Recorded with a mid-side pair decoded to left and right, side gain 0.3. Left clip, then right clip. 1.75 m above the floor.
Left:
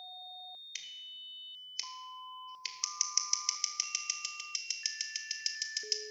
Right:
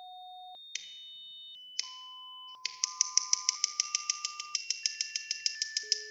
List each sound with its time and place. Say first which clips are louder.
0.8 s scissors: right 2 dB; 55° right, 1.4 m